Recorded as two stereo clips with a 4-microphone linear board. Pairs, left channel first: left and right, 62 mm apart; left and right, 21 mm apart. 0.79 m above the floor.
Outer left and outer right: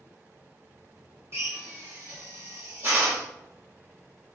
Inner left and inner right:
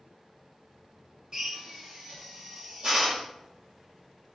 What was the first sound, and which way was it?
A drill, 45° right (ahead or behind).